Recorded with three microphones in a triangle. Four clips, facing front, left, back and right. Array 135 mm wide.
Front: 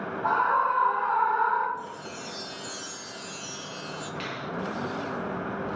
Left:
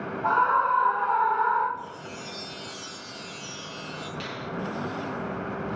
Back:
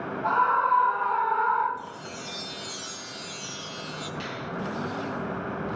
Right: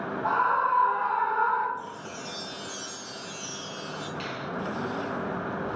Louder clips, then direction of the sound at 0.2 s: Left 2 dB, back 1 dB; 80° left.